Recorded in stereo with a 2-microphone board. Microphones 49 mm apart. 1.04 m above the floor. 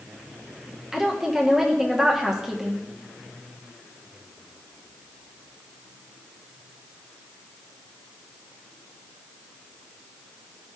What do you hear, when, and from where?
0.9 s a woman speaking: 5° right (ahead or behind), 1.0 m